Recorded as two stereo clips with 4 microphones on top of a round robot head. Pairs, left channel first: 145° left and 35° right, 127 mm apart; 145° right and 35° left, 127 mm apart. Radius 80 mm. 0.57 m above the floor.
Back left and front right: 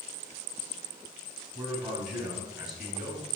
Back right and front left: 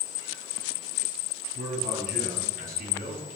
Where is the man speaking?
45° left, 5.5 m; by 3.2 s 50° left, 6.5 m.